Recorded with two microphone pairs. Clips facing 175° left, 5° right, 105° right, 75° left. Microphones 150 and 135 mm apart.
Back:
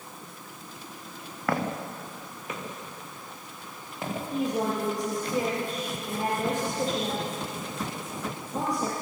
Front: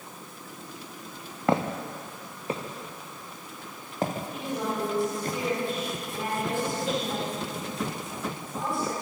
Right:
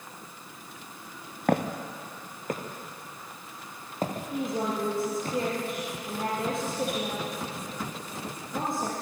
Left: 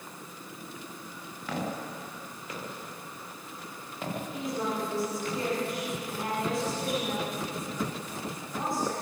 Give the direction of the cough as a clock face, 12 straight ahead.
No cough in this recording.